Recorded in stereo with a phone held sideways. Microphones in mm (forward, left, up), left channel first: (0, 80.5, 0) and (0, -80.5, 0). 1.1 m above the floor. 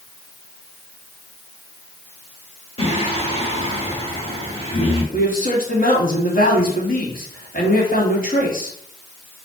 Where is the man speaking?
60° left (ahead or behind), 3 m.